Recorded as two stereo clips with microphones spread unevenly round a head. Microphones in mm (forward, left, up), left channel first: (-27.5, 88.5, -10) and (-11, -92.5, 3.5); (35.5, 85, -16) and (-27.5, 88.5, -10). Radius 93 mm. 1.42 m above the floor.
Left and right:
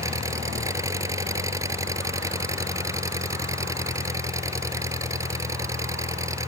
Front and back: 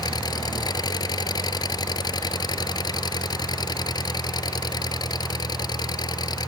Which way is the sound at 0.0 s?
10° right.